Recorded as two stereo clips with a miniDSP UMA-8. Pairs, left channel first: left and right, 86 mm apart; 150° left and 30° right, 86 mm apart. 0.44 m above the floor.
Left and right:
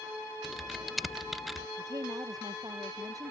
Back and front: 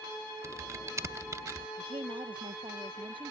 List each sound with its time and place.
0.4 s typing on a keyboard: 5° right
1.8 s a woman speaking: 45° right